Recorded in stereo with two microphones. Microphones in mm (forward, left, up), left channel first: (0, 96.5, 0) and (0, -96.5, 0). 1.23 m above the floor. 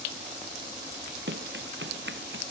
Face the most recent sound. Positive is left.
turn(degrees=-75)  # may be behind; listen again after turning